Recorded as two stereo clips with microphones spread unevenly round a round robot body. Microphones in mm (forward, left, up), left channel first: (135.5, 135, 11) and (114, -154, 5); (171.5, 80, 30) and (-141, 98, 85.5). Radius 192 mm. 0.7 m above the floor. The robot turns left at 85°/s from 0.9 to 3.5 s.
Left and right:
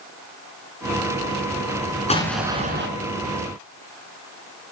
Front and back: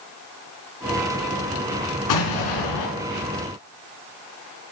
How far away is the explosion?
About 3 m.